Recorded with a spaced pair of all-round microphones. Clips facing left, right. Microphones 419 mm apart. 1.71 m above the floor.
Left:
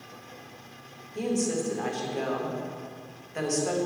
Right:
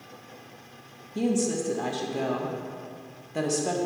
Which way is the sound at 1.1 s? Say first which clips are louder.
Right 2 dB; 50° right (ahead or behind).